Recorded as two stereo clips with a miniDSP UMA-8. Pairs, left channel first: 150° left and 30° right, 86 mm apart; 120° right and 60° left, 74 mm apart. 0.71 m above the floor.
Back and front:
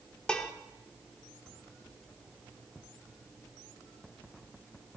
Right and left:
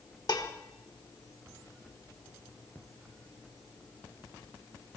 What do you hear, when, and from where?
0.3 s dishes clattering: 130° right, 1.1 m